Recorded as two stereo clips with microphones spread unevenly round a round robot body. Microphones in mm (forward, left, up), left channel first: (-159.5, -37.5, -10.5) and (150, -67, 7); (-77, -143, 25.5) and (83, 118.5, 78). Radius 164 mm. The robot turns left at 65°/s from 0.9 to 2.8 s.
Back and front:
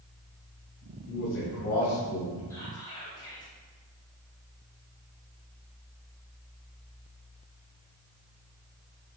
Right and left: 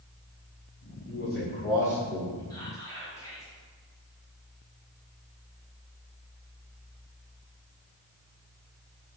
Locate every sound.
1.1 s a man speaking: 140° right, 1.0 m; by 2.4 s 135° left, 1.0 m
2.5 s whispering: 130° right, 0.9 m; by 3.5 s 150° right, 0.9 m